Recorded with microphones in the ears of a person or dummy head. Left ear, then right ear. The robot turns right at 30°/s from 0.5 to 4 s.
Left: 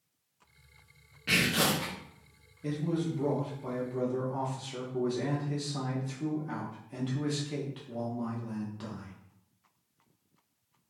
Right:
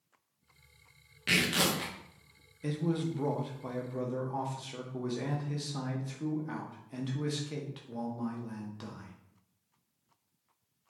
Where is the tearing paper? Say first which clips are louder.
Left 1 dB; 35° right (ahead or behind), 0.7 m; by 1.9 s 30° right (ahead or behind), 0.7 m.